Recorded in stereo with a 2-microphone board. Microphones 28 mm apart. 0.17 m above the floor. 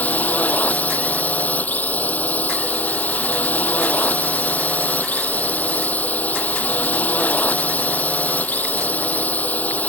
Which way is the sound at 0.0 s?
75° left (ahead or behind).